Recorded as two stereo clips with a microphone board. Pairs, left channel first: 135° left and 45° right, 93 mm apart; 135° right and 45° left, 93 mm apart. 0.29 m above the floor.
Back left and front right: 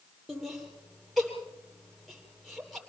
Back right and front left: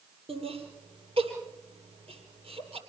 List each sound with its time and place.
0.3 s laughter: 45° left, 8 m